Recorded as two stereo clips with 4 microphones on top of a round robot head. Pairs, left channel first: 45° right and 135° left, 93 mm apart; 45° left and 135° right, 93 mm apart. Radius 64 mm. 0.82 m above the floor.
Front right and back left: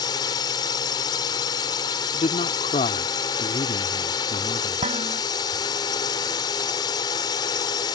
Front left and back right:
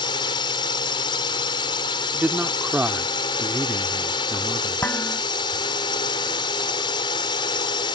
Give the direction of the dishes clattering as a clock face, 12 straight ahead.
8 o'clock.